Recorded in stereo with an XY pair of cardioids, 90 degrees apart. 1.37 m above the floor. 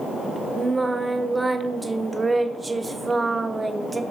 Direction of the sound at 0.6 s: 20° right.